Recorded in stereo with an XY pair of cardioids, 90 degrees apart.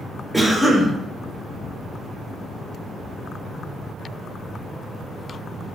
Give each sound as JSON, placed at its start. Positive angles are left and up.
{"t": 0.3, "sound": "a cough", "azimuth_deg": -5, "distance_m": 1.3}